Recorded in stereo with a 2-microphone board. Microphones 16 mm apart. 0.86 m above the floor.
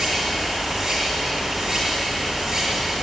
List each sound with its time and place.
0.0 s running water: 35° right (ahead or behind), 7.5 m